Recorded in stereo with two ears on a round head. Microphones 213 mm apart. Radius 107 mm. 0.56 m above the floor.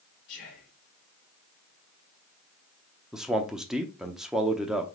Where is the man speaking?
Centre (ahead or behind), 0.7 m.